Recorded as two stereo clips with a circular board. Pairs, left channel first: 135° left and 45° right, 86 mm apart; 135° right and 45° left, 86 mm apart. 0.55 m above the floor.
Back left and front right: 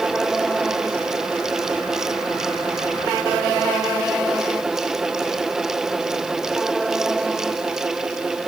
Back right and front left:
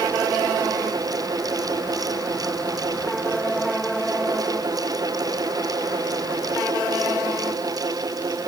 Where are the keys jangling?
No keys jangling in this recording.